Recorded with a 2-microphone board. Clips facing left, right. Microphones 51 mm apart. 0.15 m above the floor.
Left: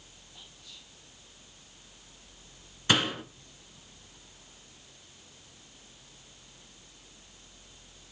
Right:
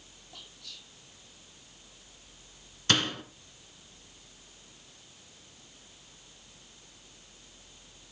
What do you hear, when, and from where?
0.3 s whispering: 75° right (ahead or behind), 4.5 m
2.9 s a door slam: 10° left (ahead or behind), 1.6 m